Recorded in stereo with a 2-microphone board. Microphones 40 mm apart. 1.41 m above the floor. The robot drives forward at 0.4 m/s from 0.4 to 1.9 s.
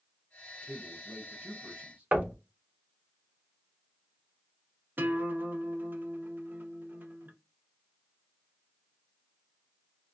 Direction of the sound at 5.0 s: 50° right (ahead or behind).